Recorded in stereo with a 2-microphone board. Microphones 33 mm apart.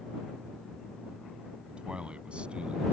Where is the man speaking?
35° right (ahead or behind); by 2.8 s 40° right (ahead or behind).